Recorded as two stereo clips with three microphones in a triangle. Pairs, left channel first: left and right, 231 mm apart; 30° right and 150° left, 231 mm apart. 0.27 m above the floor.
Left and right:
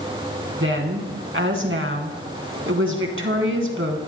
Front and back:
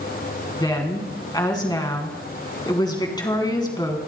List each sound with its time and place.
0.6 s a woman speaking: 100° right, 3 m